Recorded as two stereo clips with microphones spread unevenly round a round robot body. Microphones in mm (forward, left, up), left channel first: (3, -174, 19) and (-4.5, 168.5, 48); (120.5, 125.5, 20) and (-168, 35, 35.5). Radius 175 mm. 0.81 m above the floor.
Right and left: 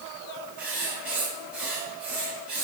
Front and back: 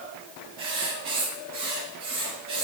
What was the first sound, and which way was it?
Writing, straight behind.